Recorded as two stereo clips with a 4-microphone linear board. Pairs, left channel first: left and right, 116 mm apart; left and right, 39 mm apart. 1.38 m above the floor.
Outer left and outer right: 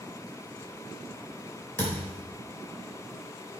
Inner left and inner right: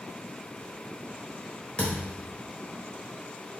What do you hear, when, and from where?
1.8 s a thud: 25° left (ahead or behind), 3 m